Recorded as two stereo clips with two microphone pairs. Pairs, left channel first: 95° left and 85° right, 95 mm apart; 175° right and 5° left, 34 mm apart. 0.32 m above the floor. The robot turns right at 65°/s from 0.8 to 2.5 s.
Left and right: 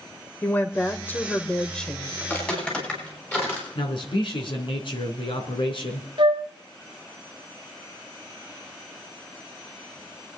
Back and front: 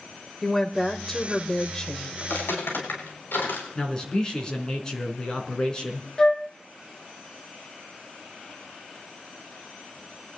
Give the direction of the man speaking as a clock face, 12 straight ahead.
8 o'clock.